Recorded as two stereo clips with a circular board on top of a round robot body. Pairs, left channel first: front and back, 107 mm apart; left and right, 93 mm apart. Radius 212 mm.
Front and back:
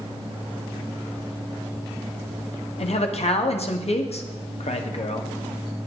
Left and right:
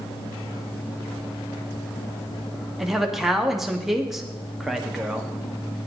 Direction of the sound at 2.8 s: 5° right.